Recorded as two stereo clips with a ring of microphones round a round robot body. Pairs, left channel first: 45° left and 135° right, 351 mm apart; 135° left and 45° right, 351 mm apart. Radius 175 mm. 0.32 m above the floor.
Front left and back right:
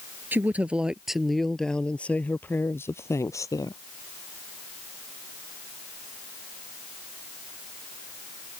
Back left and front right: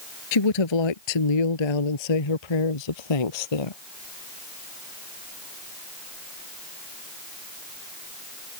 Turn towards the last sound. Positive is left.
turn(degrees=125)